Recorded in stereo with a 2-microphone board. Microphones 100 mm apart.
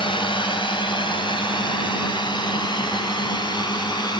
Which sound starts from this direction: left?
A drone, at 0.0 s.